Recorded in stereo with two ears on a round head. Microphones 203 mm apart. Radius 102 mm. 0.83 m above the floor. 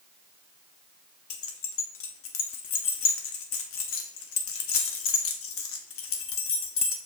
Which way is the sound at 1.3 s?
60° left (ahead or behind).